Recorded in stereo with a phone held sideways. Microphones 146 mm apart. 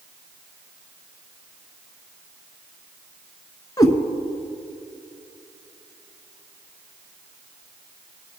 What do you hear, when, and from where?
3.8 s a cat meowing: 25° left (ahead or behind), 1.1 m